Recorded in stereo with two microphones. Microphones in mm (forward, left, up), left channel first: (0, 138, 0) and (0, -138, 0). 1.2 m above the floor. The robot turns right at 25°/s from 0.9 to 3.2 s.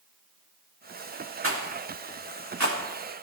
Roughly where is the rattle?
Right.